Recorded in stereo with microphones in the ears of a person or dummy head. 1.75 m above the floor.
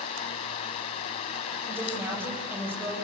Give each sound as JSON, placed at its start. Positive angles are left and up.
{"t": 1.7, "sound": "a woman speaking", "side_deg": -15, "distance_m": 8.0}